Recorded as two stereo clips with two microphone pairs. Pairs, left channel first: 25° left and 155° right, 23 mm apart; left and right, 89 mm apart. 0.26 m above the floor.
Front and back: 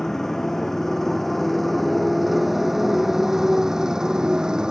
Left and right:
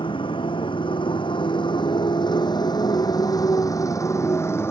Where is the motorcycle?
95° left; by 4.7 s 150° left.